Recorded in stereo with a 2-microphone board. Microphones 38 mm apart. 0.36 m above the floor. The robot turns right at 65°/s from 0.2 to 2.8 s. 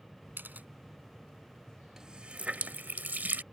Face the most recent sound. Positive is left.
turn(degrees=-50)  # may be behind; listen again after turning